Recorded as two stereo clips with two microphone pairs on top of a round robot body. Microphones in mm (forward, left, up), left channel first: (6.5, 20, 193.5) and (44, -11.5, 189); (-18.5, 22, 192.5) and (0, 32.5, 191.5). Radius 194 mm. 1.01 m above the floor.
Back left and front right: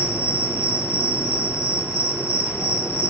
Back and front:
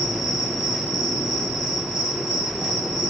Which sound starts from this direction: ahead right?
An insect, at 0.0 s.